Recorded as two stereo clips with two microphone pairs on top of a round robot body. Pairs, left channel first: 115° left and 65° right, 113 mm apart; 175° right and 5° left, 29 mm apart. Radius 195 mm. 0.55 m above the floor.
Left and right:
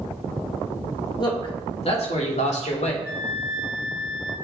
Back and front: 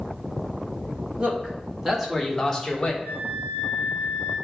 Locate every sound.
1.2 s a man speaking: 70° left, 2.5 m; by 2.9 s 125° left, 2 m
3.0 s a flute: straight ahead, 1.1 m